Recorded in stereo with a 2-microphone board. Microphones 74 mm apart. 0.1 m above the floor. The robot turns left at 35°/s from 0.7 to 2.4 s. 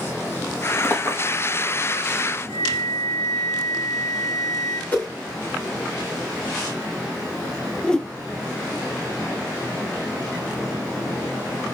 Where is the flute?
25° left (ahead or behind), 3 m.